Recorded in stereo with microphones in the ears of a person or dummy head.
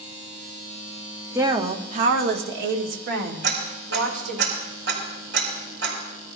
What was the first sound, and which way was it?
A woman speaking, 15° right (ahead or behind).